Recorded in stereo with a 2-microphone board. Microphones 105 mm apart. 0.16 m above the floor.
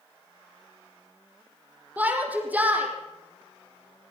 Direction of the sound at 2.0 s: 15° right (ahead or behind).